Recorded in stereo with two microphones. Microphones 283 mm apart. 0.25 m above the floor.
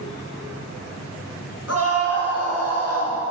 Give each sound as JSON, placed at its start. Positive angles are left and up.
{"t": 1.7, "sound": "a scream", "side_deg": 55, "distance_m": 4.0}